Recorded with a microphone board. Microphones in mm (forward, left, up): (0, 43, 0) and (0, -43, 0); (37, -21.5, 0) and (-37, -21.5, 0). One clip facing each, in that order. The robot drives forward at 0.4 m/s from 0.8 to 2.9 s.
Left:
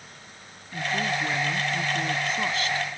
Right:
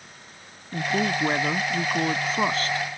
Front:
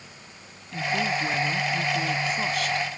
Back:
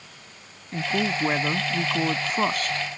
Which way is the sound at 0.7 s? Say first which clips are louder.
Right 3 dB, back 1 dB; 130° right.